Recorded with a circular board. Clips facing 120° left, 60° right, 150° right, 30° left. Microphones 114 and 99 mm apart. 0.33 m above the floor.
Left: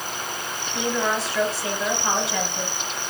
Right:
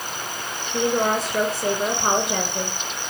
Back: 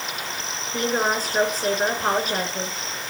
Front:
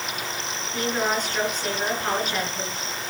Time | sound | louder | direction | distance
0.7 | a woman speaking | right 4 dB, back 2 dB | 95° right | 5.5 m